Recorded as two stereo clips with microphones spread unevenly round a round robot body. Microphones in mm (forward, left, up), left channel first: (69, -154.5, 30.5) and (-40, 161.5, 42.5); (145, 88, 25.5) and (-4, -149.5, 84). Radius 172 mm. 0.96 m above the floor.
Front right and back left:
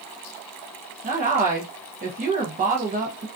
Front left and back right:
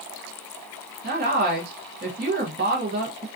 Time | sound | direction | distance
1.0 | a woman speaking | 175° left | 0.5 m